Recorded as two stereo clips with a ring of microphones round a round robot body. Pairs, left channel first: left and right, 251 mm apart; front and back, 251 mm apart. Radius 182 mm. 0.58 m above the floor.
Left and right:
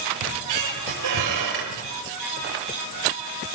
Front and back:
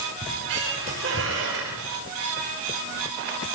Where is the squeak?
120° right, 6.5 m.